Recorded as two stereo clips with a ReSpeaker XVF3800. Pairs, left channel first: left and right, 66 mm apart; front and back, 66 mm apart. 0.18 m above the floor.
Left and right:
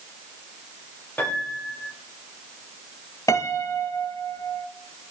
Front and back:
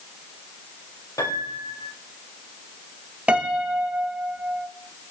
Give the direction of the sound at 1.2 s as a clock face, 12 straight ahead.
11 o'clock.